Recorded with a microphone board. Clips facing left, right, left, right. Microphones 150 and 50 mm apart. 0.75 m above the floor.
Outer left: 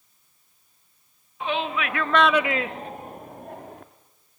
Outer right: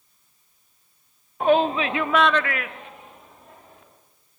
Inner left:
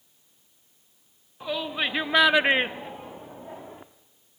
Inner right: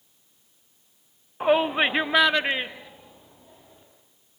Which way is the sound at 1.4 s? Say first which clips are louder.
Outer right 8 dB, inner right 8 dB; 50° right (ahead or behind).